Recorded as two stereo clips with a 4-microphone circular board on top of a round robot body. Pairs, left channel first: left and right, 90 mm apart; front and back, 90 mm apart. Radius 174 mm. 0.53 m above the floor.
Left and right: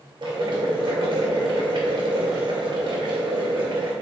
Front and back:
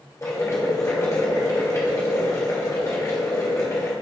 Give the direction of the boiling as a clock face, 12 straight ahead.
2 o'clock.